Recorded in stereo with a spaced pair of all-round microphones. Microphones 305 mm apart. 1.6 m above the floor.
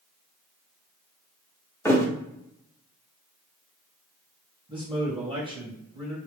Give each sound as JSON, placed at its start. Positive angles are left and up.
{"t": 1.9, "sound": "a thud", "side_deg": 10, "distance_m": 1.2}
{"t": 4.7, "sound": "a man speaking", "side_deg": -15, "distance_m": 2.0}